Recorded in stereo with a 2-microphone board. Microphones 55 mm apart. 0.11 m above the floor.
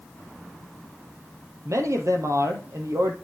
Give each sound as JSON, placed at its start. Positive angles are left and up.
{"t": 1.6, "sound": "a man speaking", "side_deg": -65, "distance_m": 3.0}